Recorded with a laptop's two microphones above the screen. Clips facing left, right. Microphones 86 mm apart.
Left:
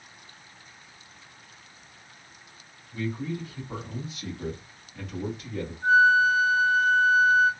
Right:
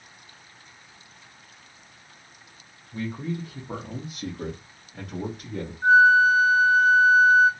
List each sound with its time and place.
2.9 s a man speaking: 40° right (ahead or behind), 1.2 m; by 5.7 s 70° right (ahead or behind), 1.9 m
5.8 s a flute: 60° right (ahead or behind), 1.9 m